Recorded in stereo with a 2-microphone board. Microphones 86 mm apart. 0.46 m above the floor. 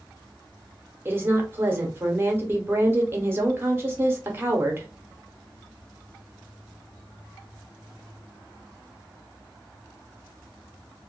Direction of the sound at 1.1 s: 25° right (ahead or behind).